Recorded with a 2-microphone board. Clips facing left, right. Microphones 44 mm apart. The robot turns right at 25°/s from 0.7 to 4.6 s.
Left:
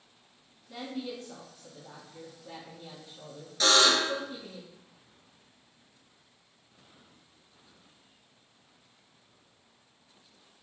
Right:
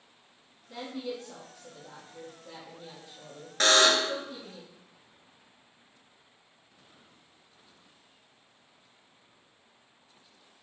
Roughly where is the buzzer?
Right.